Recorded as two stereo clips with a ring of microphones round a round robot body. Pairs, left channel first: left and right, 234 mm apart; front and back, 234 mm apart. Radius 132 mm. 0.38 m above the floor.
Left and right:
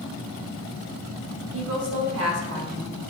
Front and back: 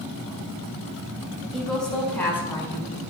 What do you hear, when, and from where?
1.5 s a woman speaking: 90° right, 3 m; by 3.0 s 75° right, 4.5 m